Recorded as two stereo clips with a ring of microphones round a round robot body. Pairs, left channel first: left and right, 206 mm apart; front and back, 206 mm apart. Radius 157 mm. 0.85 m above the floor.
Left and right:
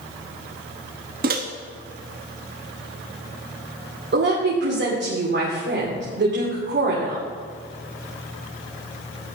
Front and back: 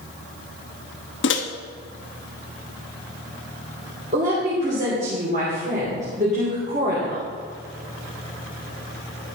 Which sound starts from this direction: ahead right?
A microwave, at 1.2 s.